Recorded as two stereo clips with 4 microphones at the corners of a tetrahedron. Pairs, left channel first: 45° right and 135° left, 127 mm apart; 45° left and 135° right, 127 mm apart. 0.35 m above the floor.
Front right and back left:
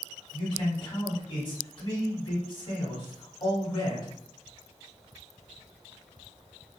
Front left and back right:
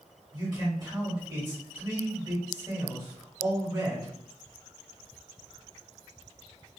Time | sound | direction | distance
0.3 | a man speaking | 85° right | 1.7 m